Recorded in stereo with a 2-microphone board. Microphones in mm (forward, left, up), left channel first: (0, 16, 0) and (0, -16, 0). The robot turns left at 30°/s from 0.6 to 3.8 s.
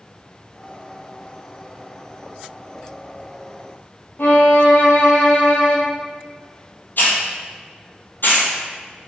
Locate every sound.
4.2 s a violin: 85° left, 0.9 m
7.0 s a hiss: 65° left (ahead or behind), 1.0 m